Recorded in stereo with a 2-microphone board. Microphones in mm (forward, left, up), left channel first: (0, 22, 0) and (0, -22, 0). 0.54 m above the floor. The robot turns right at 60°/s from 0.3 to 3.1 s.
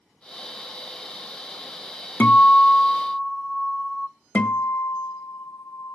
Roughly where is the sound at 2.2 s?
Behind left.